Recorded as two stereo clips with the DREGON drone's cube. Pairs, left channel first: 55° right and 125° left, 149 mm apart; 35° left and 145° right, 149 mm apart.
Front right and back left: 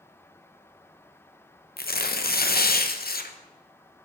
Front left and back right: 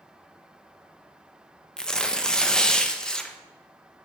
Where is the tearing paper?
50° right, 0.5 m.